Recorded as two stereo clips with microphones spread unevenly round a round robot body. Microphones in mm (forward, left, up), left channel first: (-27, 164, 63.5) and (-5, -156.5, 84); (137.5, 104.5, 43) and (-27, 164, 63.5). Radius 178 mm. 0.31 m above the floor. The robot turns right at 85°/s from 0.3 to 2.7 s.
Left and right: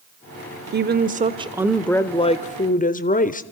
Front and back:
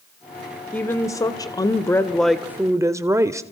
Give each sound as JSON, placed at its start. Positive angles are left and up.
{"t": 0.7, "sound": "a woman speaking", "azimuth_deg": -80, "distance_m": 1.2}